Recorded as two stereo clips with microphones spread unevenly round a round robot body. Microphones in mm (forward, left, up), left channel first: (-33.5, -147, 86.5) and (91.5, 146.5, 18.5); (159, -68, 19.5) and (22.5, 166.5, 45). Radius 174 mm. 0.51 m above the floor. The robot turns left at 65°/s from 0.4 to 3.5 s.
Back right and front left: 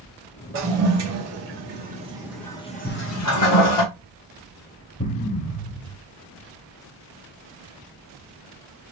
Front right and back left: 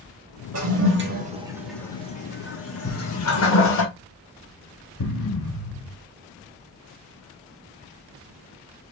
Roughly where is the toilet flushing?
Left.